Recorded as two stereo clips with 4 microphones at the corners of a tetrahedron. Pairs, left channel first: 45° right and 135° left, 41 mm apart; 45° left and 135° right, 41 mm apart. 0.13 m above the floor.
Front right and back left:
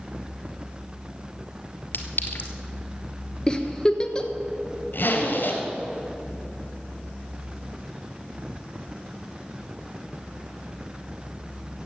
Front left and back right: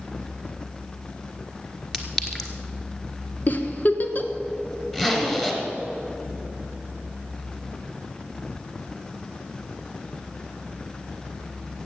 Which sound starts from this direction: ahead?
A giggle, at 3.5 s.